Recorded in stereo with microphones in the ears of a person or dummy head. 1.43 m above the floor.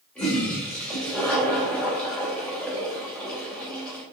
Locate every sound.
0.1 s a toilet flushing: 5° left (ahead or behind), 3.5 m